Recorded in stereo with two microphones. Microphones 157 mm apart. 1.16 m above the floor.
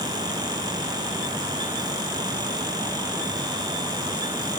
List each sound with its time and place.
Only background noise.